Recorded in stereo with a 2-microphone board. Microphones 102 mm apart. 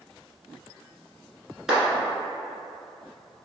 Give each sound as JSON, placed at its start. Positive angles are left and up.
{"t": 1.7, "sound": "a clap", "side_deg": -5, "distance_m": 1.3}